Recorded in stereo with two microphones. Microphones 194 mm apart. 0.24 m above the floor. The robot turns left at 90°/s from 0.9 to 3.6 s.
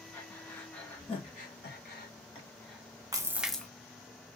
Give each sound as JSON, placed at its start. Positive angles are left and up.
{"t": 0.1, "sound": "breathing", "side_deg": 10, "distance_m": 1.5}
{"t": 3.1, "sound": "a splash", "azimuth_deg": -145, "distance_m": 0.6}